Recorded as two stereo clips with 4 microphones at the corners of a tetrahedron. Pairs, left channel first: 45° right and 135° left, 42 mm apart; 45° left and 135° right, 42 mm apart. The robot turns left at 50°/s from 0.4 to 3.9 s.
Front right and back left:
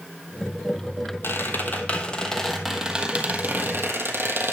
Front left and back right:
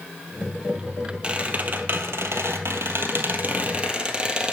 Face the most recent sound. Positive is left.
turn(degrees=160)